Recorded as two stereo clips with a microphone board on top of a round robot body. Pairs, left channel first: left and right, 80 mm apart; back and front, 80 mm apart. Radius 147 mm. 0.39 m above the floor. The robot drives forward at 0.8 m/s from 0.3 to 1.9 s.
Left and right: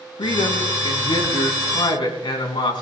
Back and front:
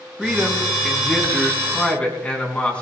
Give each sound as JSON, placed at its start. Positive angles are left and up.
{"t": 0.2, "sound": "a man speaking", "azimuth_deg": 90, "distance_m": 4.5}